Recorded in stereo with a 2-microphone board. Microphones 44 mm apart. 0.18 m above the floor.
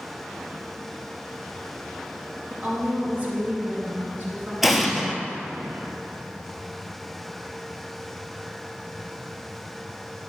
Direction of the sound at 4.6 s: 5° right (ahead or behind).